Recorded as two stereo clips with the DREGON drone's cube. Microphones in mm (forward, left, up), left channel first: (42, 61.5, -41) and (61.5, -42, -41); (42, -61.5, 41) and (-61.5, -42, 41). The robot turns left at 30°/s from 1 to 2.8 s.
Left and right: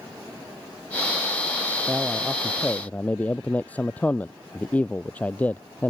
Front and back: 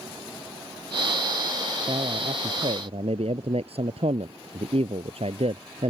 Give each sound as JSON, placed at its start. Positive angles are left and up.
{"t": 1.9, "sound": "a man speaking", "azimuth_deg": -155}